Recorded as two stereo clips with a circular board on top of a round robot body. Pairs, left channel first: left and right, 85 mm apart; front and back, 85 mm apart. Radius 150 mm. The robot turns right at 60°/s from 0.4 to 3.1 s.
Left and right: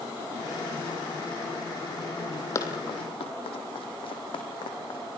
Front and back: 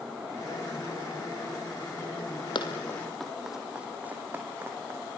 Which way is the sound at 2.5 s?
30° left.